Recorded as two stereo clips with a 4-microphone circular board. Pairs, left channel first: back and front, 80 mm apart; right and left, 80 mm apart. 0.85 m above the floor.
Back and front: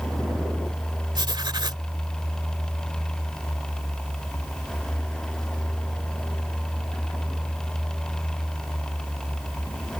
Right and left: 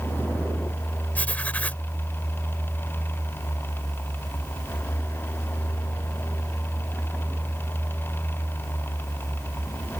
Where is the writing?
20° right.